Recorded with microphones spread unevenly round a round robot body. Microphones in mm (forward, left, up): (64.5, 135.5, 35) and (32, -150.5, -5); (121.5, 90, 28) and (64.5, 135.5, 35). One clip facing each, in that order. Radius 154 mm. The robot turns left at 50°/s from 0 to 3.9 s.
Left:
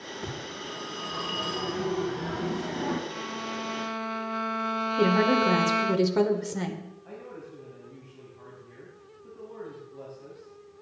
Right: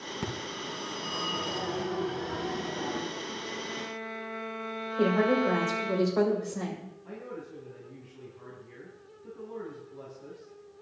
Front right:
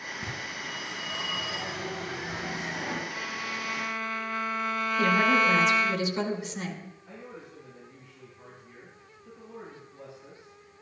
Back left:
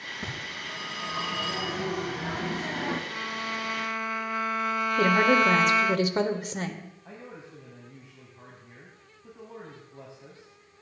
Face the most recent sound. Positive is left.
turn(degrees=180)